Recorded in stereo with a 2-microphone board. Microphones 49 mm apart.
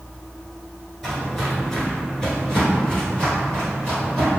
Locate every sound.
1.0 s footsteps: centre (ahead or behind), 1.3 m; by 4.3 s 15° left (ahead or behind), 2.5 m